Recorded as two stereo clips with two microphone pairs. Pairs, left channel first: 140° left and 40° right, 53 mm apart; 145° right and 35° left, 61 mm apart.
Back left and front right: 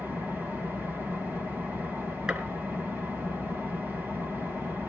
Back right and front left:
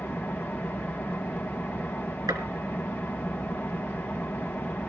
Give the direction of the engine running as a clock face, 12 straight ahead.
3 o'clock.